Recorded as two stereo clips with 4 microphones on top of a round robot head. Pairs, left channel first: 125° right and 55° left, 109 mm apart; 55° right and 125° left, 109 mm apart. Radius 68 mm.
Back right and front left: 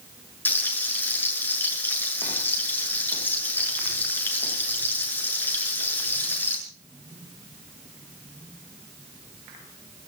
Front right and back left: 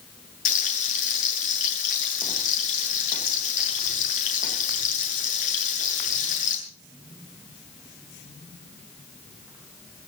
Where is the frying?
55° right, 7.5 m.